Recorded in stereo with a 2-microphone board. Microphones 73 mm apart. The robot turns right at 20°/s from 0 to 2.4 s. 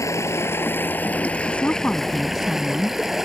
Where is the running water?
135° left; by 3.3 s 175° right.